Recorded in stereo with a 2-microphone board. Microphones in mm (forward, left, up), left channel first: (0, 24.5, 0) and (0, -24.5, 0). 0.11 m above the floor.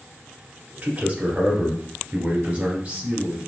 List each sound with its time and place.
0.8 s a man speaking: 25° right (ahead or behind), 1.3 m